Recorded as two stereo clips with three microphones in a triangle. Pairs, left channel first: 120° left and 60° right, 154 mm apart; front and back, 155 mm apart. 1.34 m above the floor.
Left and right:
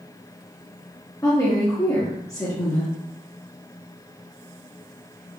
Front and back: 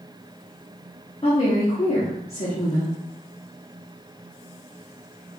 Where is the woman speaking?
50° left, 0.9 m.